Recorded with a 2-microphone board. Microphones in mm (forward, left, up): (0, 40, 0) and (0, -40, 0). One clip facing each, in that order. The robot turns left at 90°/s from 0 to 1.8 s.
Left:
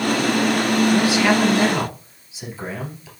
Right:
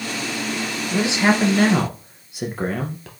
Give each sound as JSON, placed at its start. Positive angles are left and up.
{"t": 0.9, "sound": "a man speaking", "azimuth_deg": -10, "distance_m": 2.0}